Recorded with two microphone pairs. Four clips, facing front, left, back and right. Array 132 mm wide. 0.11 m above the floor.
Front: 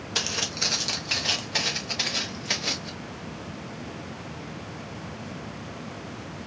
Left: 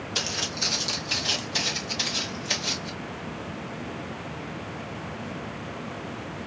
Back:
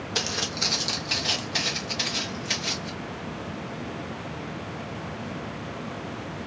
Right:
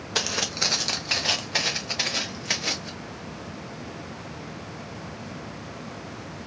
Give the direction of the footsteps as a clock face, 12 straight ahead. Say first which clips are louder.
Right 6 dB, back 1 dB; 4 o'clock.